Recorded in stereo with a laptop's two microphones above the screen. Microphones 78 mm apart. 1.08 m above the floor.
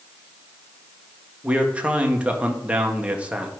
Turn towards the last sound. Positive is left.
turn(degrees=-15)  # may be behind; listen again after turning